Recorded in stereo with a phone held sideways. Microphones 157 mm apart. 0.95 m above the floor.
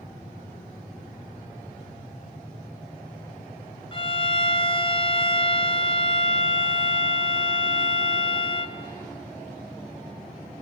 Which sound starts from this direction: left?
A violin, at 3.9 s.